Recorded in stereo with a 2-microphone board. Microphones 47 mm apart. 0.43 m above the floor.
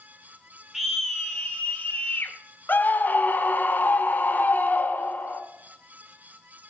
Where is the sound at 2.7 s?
40° left (ahead or behind), 1.5 m.